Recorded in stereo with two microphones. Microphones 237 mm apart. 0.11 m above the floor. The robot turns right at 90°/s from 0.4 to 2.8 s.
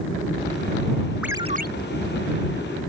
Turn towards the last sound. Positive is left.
turn(degrees=-35)